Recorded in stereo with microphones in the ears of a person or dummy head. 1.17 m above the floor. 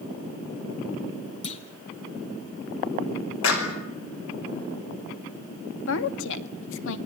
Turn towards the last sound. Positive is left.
turn(degrees=85)